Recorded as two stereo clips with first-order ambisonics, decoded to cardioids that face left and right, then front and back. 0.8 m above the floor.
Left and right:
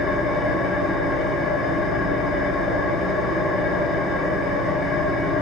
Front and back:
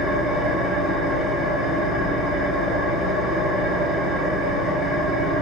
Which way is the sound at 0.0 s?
40° left.